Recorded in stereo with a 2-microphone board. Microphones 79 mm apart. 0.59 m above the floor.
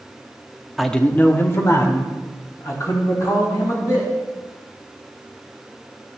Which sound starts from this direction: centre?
A man speaking, at 0.8 s.